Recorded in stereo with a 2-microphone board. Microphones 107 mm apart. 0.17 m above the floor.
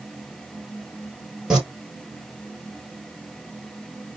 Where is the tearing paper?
5° right (ahead or behind), 1.0 m.